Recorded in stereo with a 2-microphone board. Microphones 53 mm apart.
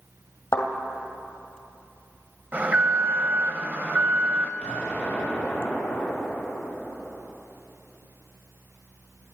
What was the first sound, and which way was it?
A thud, 75° left (ahead or behind).